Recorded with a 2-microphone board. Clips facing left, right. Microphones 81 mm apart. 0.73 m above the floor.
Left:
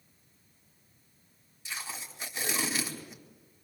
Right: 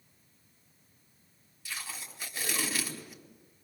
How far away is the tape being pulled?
About 4 m.